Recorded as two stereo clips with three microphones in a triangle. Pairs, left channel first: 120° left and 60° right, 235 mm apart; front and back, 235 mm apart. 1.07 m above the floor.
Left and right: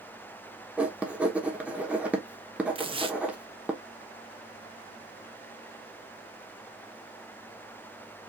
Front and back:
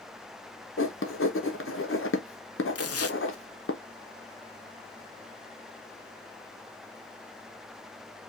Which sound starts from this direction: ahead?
Tearing paper, at 2.8 s.